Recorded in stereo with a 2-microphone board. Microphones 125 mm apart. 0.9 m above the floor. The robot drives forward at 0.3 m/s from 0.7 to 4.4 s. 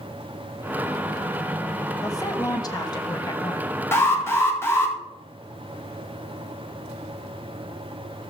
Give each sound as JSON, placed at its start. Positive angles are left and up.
{"t": 2.0, "sound": "a woman speaking", "side_deg": 30, "distance_m": 1.3}
{"t": 3.9, "sound": "an alarm", "side_deg": 20, "distance_m": 2.0}